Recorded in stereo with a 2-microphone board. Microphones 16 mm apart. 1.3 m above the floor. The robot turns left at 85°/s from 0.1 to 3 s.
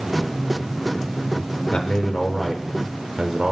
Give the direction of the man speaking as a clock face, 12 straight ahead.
10 o'clock.